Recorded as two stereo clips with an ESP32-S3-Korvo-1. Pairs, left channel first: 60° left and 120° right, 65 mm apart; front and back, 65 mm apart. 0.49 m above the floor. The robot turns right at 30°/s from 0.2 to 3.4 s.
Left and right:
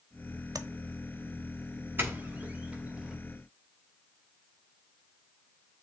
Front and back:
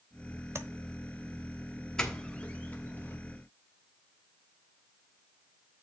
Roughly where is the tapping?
Behind right.